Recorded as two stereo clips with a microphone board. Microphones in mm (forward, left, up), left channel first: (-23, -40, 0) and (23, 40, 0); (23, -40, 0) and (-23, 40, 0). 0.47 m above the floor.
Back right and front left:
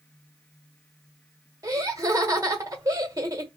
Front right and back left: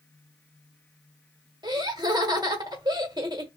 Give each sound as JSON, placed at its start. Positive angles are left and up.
{"t": 1.6, "sound": "laughter", "azimuth_deg": 100, "distance_m": 1.3}